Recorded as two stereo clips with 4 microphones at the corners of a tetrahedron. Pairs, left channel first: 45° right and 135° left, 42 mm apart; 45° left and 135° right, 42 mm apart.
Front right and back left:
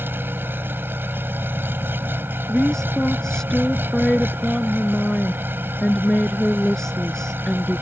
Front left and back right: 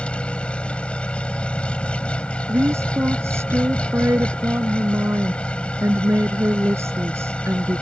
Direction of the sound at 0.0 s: 105° left.